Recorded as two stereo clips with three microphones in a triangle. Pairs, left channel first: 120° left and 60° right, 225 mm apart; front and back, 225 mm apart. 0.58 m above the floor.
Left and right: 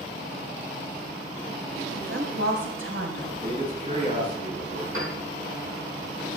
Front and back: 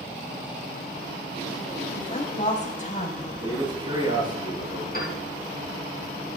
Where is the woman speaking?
55° right, 3 m.